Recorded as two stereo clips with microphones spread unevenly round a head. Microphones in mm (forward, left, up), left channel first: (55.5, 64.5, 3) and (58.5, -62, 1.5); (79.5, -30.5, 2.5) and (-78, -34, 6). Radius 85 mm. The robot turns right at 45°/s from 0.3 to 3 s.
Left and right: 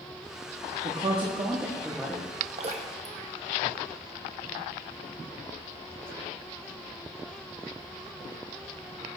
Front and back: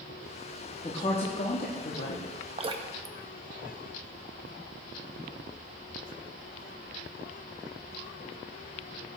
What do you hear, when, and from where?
0.8 s a woman speaking: 60° right, 1.0 m; by 2.3 s 5° left, 1.0 m
2.6 s dripping: 130° right, 0.7 m; by 4.5 s 110° right, 0.7 m